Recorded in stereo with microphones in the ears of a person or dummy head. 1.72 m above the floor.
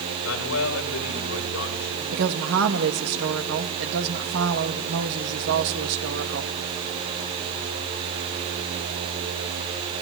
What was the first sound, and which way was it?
A man speaking, 85° left.